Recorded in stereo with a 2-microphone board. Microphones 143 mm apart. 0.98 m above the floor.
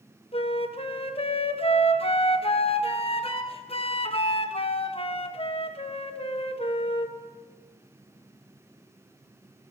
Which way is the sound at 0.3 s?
40° left (ahead or behind).